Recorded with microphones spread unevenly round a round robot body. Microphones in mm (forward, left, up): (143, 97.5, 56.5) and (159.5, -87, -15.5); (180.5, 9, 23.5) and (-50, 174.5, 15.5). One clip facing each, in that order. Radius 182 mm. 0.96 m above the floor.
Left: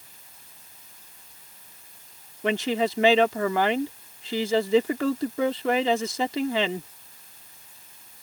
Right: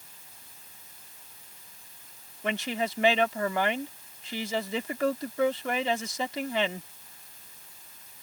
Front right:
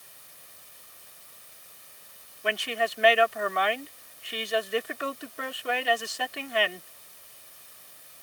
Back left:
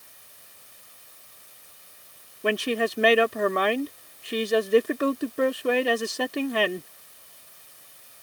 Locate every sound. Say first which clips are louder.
2.4 s a woman speaking: left 6 dB, back left 7 dB; 105° left